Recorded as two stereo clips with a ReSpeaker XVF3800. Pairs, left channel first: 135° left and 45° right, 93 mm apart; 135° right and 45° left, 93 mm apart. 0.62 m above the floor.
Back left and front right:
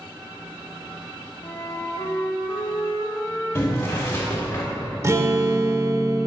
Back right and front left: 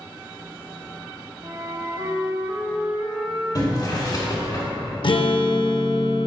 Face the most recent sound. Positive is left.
turn(degrees=-105)